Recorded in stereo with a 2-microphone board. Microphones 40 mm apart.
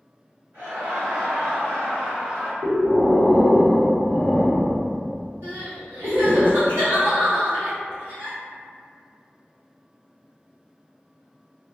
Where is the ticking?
No ticking in this recording.